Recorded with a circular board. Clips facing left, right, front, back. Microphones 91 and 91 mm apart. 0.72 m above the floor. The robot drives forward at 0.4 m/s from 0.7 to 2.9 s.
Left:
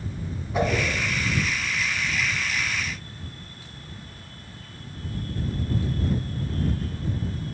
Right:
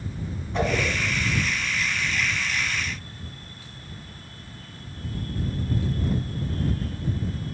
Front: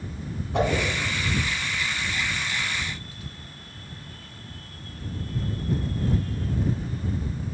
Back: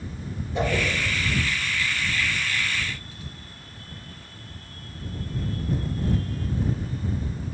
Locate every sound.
0.5 s a whoosh: 5° left, 2.0 m